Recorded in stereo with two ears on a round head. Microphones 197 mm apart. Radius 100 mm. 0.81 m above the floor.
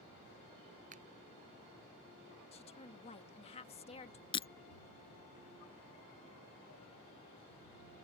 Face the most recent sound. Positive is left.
turn(degrees=25)  # may be behind; listen again after turning